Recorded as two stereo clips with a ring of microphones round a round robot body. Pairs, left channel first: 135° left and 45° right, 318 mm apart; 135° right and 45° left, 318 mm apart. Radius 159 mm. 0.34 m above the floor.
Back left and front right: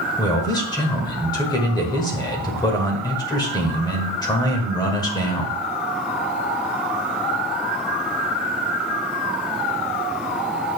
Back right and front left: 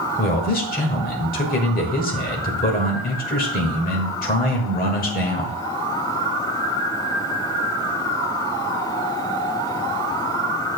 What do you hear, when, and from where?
0.2 s a man speaking: 160° right, 1.4 m